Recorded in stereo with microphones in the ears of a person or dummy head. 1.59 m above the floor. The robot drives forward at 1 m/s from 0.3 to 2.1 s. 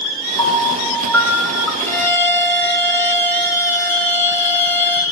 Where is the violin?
10° left (ahead or behind), 5.5 m.